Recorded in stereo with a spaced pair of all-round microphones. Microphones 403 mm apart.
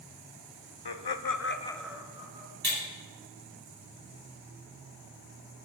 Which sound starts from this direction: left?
Laughter, at 0.8 s.